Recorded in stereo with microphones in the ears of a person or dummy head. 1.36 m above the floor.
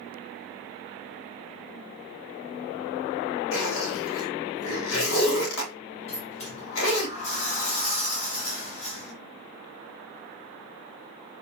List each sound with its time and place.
3.5 s a zipper: 80° left, 3 m
6.1 s a sliding door: 40° left (ahead or behind), 1.9 m